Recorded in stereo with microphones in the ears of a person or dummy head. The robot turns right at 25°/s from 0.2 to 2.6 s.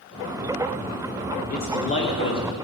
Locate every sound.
1.5 s a man speaking: 45° left (ahead or behind), 1.2 m; by 2.5 s 20° left (ahead or behind), 1.2 m